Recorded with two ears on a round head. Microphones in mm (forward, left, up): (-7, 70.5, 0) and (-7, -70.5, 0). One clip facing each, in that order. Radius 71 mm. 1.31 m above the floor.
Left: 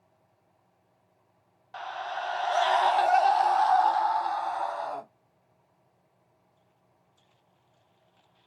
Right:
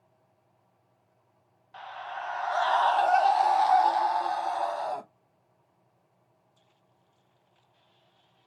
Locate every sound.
1.7 s a scream: 55° left (ahead or behind), 0.9 m; by 5.0 s 35° right (ahead or behind), 1.6 m